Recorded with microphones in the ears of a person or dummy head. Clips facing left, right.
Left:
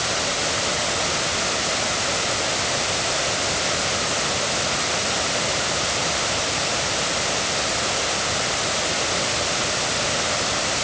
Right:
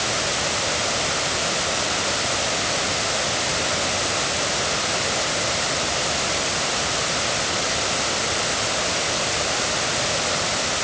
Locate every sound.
Only background noise.